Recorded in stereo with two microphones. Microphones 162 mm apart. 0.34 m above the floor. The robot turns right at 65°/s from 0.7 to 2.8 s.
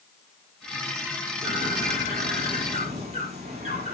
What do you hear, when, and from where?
1.4 s a bird: 130° right, 7 m; by 3.9 s 40° right, 7 m